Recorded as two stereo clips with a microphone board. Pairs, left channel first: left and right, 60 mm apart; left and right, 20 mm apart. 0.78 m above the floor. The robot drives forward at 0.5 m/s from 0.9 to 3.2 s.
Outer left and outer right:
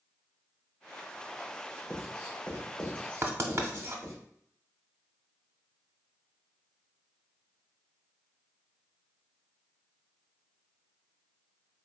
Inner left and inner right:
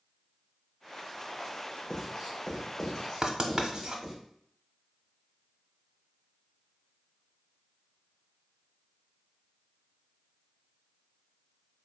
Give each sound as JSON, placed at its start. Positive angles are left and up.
{"t": 1.9, "sound": "writing", "side_deg": 20, "distance_m": 1.6}
{"t": 3.2, "sound": "writing", "side_deg": -45, "distance_m": 0.6}